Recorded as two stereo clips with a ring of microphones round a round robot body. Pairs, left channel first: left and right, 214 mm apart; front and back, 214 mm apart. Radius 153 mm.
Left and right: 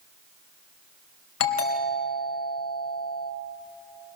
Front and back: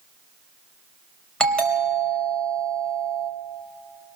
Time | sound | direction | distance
1.4 | a doorbell | 85° left | 4 m